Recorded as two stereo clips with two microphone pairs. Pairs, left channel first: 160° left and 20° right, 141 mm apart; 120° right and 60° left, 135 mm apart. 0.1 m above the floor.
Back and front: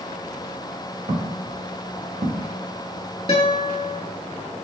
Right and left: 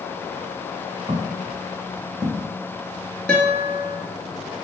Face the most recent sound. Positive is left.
turn(degrees=160)